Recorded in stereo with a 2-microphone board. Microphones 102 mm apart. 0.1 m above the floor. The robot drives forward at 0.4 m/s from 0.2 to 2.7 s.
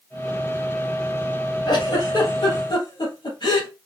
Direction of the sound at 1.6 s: 50° left (ahead or behind).